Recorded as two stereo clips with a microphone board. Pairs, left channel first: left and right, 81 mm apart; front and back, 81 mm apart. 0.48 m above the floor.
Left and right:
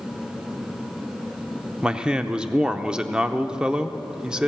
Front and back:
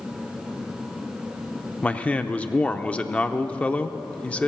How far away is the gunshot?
No gunshot in this recording.